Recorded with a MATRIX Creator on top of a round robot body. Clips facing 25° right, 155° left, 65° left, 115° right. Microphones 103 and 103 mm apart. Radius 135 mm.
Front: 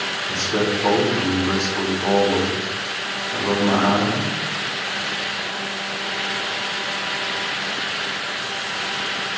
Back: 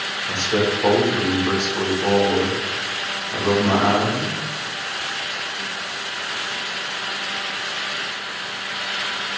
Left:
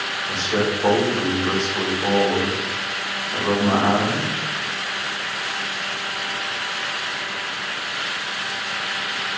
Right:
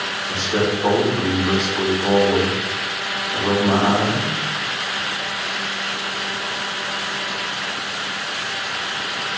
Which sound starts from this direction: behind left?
A man speaking, at 0.3 s.